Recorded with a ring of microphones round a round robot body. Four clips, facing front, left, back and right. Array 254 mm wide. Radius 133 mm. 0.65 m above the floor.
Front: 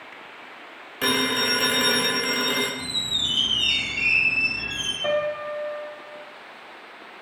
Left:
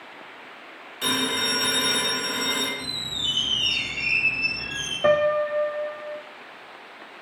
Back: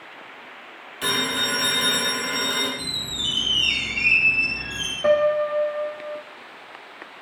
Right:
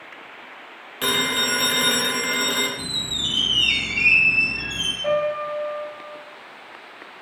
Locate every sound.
1.0 s a phone ringing: 30° right, 2.5 m
2.8 s a squeak: 100° right, 3.5 m
5.0 s a piano: 105° left, 0.6 m